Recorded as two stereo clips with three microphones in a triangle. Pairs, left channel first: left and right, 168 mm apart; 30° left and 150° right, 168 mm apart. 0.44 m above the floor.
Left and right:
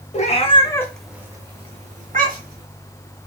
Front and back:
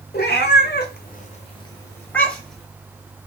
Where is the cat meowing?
50° left, 0.8 m; by 2.7 s 60° right, 1.2 m.